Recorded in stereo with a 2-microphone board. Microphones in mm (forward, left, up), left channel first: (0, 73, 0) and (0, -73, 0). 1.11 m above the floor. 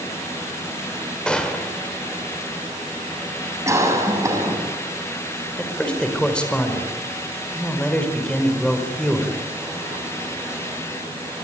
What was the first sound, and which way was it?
A gunshot, 5° left (ahead or behind).